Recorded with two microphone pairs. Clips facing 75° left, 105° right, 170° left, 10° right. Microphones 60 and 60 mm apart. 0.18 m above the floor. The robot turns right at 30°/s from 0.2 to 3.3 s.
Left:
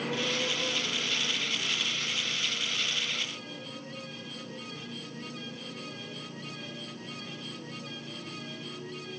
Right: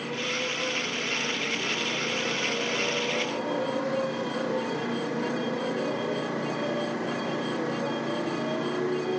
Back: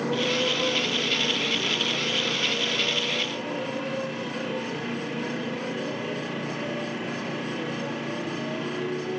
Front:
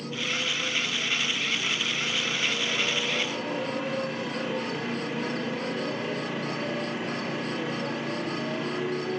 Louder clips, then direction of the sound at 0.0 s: Right 1 dB, back 6 dB; 165° left.